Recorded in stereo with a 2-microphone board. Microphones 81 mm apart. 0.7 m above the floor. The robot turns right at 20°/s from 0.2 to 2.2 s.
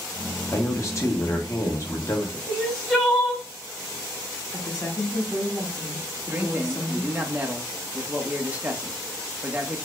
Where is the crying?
10° left (ahead or behind), 1.7 m.